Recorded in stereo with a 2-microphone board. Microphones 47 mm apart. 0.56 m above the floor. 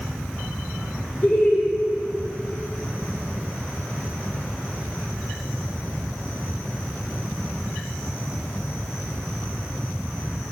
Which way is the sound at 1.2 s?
30° left (ahead or behind).